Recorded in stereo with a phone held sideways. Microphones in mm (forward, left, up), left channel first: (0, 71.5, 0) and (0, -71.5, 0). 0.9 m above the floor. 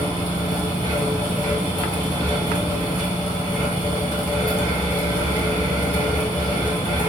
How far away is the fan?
About 0.9 m.